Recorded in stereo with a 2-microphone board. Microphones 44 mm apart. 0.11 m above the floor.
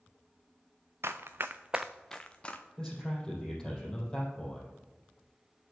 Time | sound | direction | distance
1.0 | running footsteps | 85° right | 0.8 m
2.8 | a man speaking | 15° left (ahead or behind) | 3.5 m